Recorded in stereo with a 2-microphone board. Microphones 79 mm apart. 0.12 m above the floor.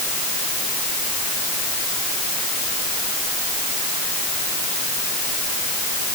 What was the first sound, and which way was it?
Only background noise.